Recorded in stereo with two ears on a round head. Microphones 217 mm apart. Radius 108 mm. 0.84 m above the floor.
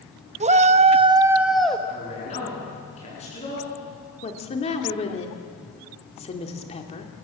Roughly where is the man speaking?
Left.